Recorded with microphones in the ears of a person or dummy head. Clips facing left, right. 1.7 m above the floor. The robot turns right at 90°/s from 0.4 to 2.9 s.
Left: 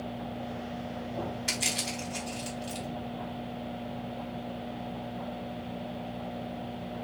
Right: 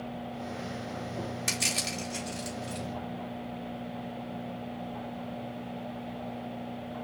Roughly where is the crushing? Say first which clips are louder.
Even; right.